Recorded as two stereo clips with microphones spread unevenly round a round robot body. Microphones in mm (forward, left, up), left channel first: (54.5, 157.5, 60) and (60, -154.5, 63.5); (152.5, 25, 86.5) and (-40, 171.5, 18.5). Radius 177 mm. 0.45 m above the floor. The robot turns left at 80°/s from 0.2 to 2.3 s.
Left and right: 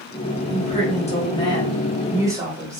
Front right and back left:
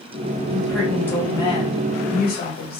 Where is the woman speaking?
120° left, 1.2 m; by 2.8 s 25° right, 1.2 m.